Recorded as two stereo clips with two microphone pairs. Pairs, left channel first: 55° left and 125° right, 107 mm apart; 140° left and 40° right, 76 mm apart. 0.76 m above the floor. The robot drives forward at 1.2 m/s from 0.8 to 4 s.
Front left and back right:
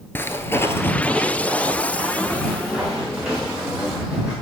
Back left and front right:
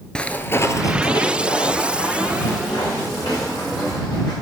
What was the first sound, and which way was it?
Footsteps, 85° left.